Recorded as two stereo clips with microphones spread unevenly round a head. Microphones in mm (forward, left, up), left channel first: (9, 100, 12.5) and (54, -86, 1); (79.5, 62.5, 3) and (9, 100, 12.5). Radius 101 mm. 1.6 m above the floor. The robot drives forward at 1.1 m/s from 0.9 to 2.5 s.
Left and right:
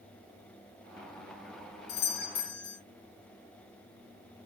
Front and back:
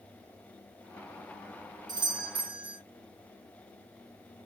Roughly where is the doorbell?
Behind left.